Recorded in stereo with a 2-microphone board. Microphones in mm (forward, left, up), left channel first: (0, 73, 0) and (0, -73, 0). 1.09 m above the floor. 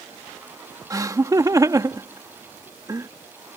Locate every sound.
0.9 s laughter: 20° right (ahead or behind)